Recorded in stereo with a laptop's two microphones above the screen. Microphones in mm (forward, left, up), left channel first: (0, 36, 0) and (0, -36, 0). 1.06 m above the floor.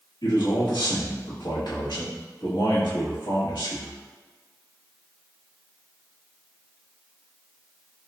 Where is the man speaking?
80° left, 2 m.